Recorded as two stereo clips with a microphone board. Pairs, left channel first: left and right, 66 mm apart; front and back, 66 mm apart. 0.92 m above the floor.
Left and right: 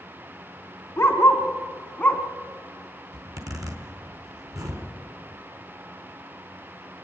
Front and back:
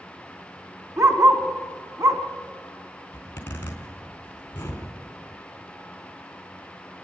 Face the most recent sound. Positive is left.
turn(degrees=-60)